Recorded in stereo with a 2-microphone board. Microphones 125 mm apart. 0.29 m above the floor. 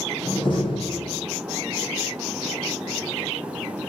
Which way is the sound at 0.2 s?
40° left (ahead or behind).